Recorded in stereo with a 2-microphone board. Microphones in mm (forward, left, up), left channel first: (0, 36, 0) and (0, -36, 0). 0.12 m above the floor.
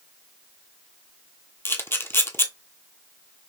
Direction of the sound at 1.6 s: 35° left (ahead or behind).